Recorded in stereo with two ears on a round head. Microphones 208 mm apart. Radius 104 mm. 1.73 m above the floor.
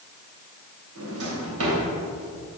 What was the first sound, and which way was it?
A drawer, 65° right (ahead or behind).